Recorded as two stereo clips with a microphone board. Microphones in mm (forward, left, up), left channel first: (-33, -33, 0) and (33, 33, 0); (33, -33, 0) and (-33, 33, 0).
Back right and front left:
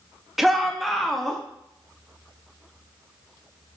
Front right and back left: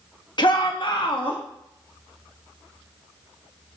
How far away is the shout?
About 1.5 m.